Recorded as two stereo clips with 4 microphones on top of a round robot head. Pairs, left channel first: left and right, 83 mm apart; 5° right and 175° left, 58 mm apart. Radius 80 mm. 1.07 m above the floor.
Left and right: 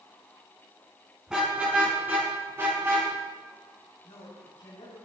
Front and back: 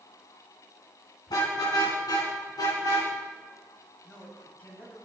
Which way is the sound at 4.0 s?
55° left.